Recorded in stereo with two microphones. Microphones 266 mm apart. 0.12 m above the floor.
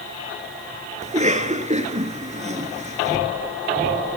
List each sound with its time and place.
1.0 s a cough: 25° right (ahead or behind), 1.7 m